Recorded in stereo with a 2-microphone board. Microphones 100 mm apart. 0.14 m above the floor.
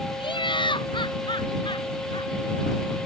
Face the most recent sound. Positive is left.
turn(degrees=55)  # may be behind; listen again after turning